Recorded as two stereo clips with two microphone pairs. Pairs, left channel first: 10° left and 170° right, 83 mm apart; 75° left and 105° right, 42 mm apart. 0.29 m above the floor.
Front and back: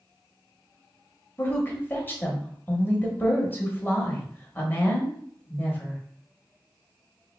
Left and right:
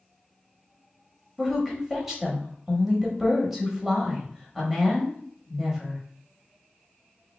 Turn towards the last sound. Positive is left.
turn(degrees=-30)